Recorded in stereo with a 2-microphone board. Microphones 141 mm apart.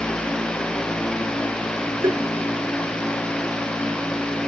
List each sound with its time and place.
2.0 s tapping: 25° right (ahead or behind)